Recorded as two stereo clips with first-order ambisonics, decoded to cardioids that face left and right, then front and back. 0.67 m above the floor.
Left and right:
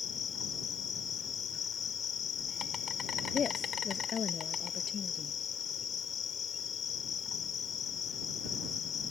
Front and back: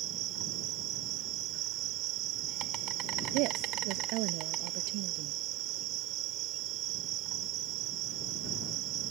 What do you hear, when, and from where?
0.0 s an insect: 150° left
3.3 s a woman speaking: 155° left